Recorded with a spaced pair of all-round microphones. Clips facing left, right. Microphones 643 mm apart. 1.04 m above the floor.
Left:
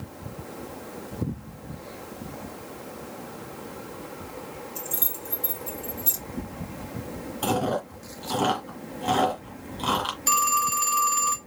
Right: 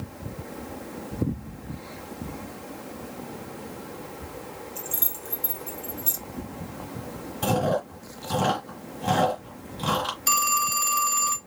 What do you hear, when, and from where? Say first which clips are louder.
4.8 s keys jangling: left 1 dB; 65° left (ahead or behind), 1.4 m
7.4 s chewing: right 1 dB; 45° right (ahead or behind), 2 m
10.3 s a phone ringing: left 2 dB; 15° right (ahead or behind), 0.8 m